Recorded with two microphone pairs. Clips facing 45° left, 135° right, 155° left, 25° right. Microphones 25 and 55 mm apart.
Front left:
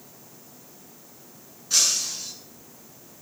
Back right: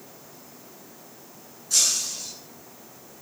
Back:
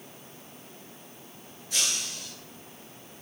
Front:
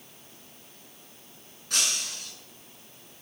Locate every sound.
1.7 s breaking glass: 15° right, 7.5 m